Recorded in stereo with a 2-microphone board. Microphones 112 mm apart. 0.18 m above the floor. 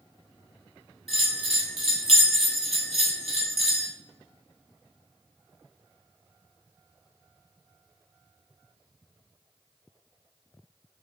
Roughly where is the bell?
Centre.